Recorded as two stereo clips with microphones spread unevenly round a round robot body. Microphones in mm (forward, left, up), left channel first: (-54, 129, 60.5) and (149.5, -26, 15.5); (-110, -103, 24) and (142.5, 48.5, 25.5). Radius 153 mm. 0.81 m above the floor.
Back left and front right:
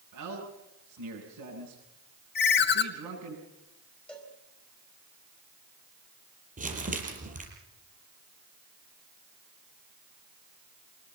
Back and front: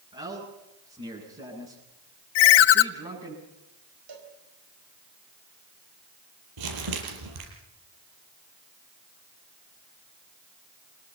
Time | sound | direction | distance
0.1 | a man speaking | 40° right | 9 m
2.4 | a ringtone | 160° right | 0.8 m
4.1 | a cowbell | 55° left | 5 m
6.6 | crumpling | 25° left | 6 m